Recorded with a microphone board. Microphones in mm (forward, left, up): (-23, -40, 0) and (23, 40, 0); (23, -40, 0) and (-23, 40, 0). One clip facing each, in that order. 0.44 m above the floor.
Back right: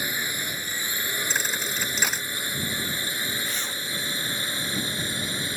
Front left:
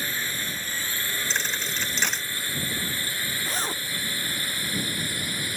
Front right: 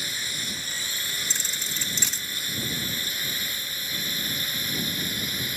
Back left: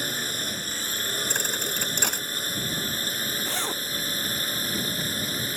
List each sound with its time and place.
0.0 s a drone: 165° left; by 5.6 s 175° left
1.3 s a thud: 155° left
3.5 s a zipper: 115° left